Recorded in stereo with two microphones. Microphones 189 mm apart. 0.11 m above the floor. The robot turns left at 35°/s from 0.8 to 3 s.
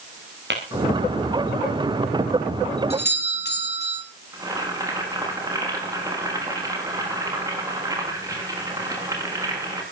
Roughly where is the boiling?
Centre.